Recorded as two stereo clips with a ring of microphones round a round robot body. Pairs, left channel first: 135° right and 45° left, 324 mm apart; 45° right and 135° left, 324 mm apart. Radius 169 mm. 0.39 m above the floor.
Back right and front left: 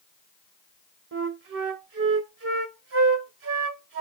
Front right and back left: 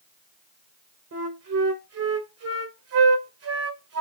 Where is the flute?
95° left, 1.5 m.